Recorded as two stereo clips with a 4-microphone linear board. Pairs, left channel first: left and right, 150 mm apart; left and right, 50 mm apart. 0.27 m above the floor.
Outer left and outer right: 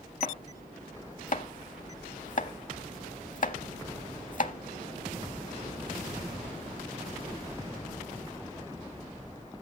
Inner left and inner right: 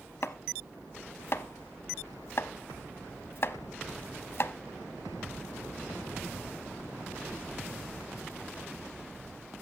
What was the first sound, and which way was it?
Chopping, 60° left (ahead or behind).